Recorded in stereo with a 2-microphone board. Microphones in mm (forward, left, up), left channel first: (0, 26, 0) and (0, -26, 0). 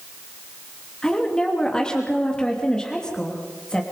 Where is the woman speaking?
15° left (ahead or behind), 3 m.